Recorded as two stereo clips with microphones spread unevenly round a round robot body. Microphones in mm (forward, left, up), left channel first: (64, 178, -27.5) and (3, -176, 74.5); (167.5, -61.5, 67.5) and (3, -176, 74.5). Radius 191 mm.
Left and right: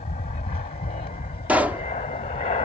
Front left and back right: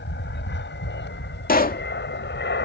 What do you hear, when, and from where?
0.0 s an aircraft: 10° left
1.5 s a pop: 10° right